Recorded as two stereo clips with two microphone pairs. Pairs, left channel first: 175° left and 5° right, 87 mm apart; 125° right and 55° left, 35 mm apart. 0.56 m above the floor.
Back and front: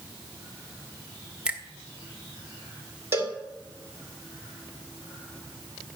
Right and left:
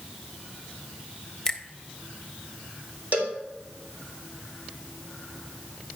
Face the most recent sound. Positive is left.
turn(degrees=55)